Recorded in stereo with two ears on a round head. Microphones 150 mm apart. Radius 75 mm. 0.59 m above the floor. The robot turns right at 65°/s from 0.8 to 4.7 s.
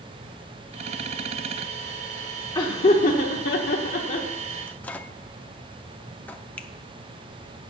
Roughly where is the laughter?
Left.